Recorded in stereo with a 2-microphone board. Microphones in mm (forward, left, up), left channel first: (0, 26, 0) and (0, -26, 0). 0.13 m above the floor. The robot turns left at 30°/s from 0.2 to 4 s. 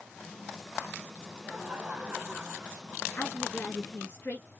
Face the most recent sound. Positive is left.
turn(degrees=40)  # may be behind; listen again after turning